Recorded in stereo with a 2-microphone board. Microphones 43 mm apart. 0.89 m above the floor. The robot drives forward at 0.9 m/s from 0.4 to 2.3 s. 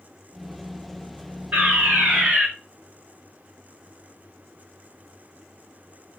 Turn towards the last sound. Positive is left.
turn(degrees=-30)  # may be behind; listen again after turning